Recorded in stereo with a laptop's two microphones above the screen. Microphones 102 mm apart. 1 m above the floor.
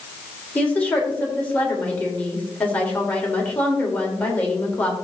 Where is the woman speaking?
15° left (ahead or behind), 4 m.